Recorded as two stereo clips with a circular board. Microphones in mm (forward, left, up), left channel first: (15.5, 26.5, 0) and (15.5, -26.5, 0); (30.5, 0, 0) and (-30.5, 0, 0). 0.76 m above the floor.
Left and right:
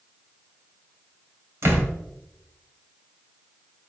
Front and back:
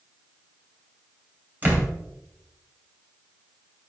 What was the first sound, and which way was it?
A door slam, 120° right.